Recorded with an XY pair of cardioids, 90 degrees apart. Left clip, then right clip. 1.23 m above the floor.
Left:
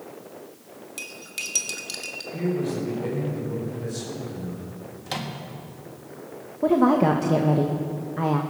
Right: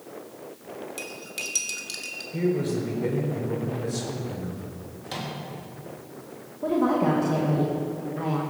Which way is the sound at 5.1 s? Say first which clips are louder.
Left 2 dB; 50° left.